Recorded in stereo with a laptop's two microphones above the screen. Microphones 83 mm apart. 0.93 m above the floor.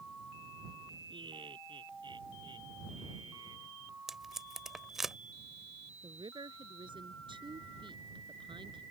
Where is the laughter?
75° right (ahead or behind); by 3.7 s 60° right (ahead or behind).